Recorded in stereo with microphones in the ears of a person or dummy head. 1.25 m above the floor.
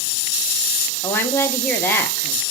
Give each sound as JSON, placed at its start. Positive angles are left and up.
{"t": 1.0, "sound": "a woman speaking", "side_deg": 10, "distance_m": 0.7}